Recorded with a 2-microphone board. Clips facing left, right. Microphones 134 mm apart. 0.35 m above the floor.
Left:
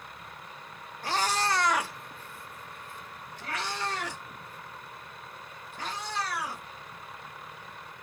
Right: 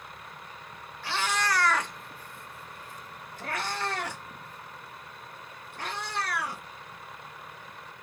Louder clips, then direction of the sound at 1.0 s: Left 1 dB; 45° left (ahead or behind).